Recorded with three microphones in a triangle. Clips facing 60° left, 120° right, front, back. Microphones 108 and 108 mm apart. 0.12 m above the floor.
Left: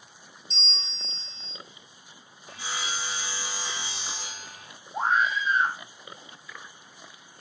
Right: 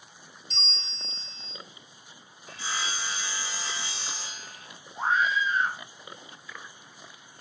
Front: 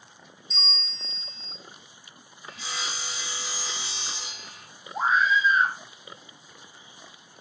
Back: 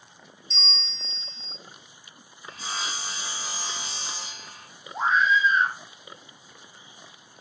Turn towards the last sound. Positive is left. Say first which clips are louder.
# left 1 dB, back 1 dB
turn(degrees=85)